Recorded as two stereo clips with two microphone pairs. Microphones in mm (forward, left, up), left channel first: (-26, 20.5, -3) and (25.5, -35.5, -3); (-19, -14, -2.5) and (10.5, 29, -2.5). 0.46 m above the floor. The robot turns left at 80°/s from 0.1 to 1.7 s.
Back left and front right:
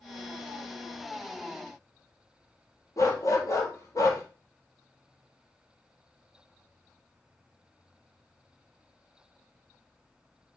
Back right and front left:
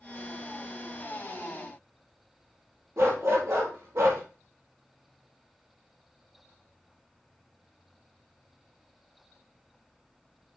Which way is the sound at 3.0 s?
90° left.